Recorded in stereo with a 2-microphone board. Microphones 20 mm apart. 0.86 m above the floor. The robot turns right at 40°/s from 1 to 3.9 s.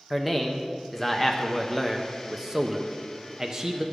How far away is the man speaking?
About 0.5 m.